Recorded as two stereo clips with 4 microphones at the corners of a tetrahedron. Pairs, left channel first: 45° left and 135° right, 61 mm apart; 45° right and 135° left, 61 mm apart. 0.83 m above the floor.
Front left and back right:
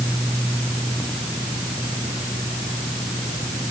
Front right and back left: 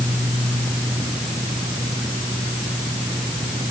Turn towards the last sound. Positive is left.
No sound to turn to.